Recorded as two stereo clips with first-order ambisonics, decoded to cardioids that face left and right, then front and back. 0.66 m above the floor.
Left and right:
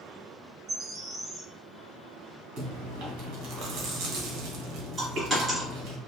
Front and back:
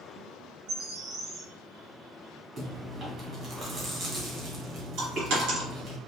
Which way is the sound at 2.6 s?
120° right.